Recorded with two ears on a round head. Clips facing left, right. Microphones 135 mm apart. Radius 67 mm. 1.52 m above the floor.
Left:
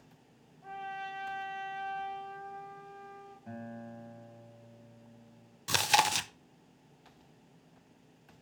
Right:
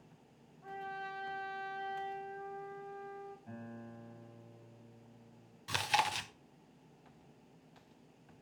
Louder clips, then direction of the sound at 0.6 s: Left 3 dB; 25° left (ahead or behind).